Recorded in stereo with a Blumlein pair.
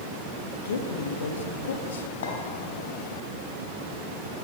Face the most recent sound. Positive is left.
turn(degrees=60)